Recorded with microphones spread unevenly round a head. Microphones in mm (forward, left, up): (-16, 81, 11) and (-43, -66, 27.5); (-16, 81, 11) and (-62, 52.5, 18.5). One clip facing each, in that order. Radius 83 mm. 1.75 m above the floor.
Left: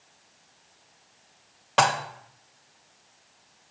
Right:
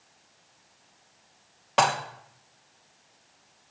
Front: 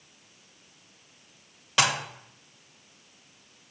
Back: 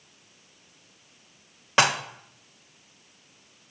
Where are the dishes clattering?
175° left, 1.3 m.